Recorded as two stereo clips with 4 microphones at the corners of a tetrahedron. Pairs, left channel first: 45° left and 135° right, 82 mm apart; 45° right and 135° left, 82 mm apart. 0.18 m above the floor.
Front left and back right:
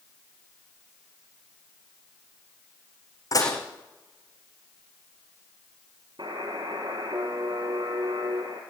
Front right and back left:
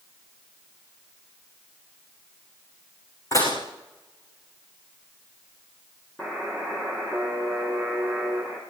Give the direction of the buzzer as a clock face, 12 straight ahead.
4 o'clock.